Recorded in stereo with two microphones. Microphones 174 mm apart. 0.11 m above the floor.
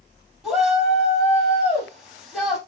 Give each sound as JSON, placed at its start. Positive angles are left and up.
{"t": 0.4, "sound": "a shout", "side_deg": 0, "distance_m": 3.0}